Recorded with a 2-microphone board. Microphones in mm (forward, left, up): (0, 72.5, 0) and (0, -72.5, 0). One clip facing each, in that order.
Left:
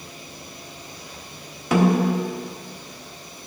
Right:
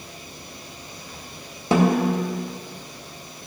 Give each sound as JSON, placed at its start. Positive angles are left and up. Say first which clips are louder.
{"t": 1.7, "sound": "a snare drum", "louder": "even", "side_deg": -30, "distance_m": 1.3}